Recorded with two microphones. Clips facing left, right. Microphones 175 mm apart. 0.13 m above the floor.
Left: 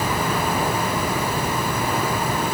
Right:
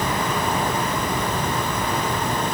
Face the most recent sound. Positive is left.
No sound to turn to.